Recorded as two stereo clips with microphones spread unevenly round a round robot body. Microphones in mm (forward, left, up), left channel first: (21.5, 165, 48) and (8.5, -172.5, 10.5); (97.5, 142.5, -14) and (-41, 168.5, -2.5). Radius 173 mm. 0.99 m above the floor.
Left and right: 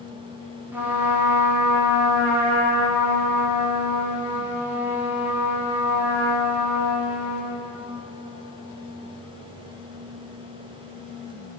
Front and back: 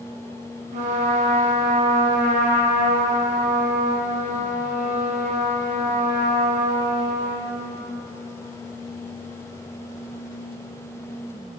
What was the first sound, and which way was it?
A trumpet, 170° right.